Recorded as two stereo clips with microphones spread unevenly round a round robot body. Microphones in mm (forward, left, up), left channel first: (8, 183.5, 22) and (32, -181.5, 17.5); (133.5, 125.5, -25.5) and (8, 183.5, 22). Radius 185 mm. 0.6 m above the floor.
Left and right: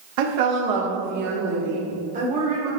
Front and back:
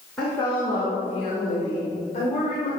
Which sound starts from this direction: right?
A woman speaking, at 0.2 s.